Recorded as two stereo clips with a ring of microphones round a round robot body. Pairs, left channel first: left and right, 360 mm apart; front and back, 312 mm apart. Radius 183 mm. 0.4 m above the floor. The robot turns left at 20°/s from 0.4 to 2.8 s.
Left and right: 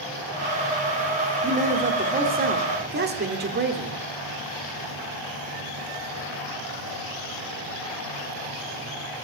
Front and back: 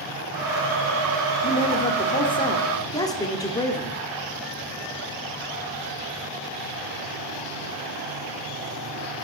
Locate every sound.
1.4 s a man speaking: 40° right, 1.2 m; by 4.0 s 65° right, 1.2 m